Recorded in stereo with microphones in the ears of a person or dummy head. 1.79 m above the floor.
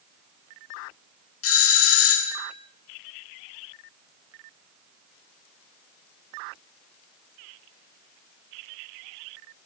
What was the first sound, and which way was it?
A doorbell, 80° left.